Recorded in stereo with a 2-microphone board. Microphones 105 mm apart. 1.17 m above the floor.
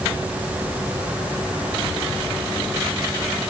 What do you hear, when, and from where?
Only background noise.